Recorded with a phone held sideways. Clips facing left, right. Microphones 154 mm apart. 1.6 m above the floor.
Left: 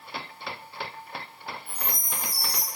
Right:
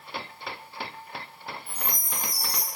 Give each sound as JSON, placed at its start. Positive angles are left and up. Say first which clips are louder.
{"t": 1.7, "sound": "a chime", "louder": "even", "side_deg": -35, "distance_m": 1.3}